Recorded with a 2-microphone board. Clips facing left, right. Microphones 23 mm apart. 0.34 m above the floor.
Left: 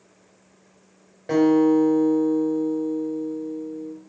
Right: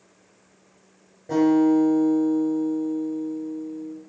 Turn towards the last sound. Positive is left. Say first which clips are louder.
# left 1 dB
turn(degrees=65)  # may be behind; listen again after turning